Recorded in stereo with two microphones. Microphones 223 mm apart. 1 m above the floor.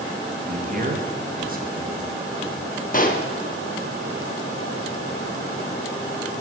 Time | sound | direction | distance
0.5 | a man speaking | 40° right (ahead or behind) | 1.2 m
2.9 | a pop | 40° left (ahead or behind) | 0.7 m